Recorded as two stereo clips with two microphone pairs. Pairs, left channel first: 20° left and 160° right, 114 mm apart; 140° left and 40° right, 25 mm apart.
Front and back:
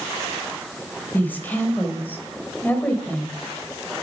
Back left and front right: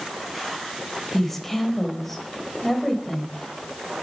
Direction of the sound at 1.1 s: 75° left.